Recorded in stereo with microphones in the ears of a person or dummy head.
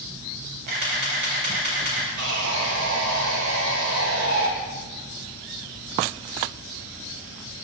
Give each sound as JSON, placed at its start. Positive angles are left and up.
{"t": 0.7, "sound": "a camera shutter", "side_deg": -50, "distance_m": 4.0}
{"t": 2.2, "sound": "sawing", "side_deg": -80, "distance_m": 1.9}